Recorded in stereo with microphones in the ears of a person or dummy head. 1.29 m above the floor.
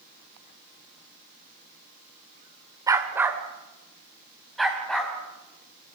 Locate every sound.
2.9 s a dog barking: 10° right (ahead or behind), 1.9 m; by 5.1 s 10° left (ahead or behind), 4.5 m